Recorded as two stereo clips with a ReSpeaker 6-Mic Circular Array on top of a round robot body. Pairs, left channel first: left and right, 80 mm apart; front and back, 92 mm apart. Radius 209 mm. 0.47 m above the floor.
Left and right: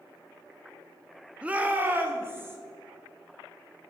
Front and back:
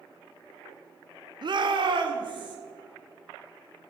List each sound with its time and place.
1.4 s a shout: 165° right, 1.2 m; by 2.6 s 150° right, 2.5 m